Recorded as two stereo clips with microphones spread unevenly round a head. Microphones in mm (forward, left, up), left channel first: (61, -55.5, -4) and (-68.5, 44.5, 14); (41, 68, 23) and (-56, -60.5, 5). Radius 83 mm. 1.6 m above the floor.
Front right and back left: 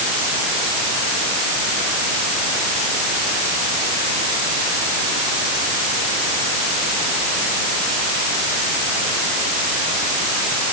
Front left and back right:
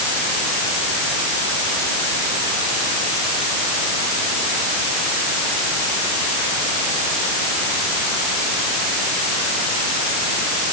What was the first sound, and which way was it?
Only background noise.